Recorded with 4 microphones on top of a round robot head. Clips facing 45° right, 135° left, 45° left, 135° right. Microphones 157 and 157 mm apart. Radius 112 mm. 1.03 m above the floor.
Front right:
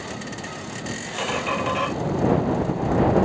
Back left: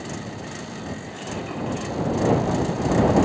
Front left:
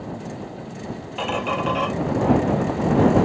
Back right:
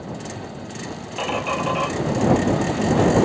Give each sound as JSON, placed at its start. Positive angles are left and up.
{"t": 1.2, "sound": "a squeak", "azimuth_deg": -45}